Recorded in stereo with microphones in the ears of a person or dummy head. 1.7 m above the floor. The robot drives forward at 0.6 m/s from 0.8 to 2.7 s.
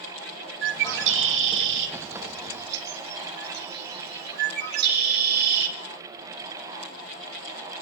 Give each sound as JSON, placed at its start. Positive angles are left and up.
{"t": 0.6, "sound": "a bird", "side_deg": -65, "distance_m": 2.5}